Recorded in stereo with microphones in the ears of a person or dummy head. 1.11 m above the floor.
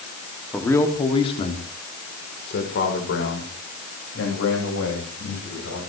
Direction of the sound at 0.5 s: 5° left (ahead or behind).